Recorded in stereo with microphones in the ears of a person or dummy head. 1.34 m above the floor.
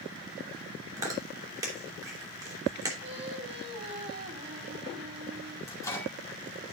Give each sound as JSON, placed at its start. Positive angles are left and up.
{"t": 1.0, "sound": "chewing", "side_deg": -20, "distance_m": 2.5}
{"t": 3.0, "sound": "singing", "side_deg": -30, "distance_m": 2.5}
{"t": 5.7, "sound": "a microwave", "side_deg": 15, "distance_m": 2.5}